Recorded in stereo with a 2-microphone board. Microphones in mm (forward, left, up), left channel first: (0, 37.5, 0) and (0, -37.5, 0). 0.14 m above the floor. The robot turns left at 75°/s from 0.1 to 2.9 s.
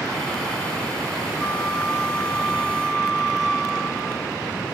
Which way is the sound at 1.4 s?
130° left.